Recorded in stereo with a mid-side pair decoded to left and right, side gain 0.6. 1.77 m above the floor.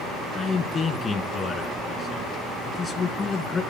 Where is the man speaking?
35° left, 1.9 m.